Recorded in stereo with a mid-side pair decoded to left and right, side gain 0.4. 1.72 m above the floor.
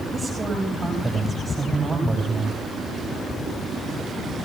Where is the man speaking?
30° right, 9.5 m.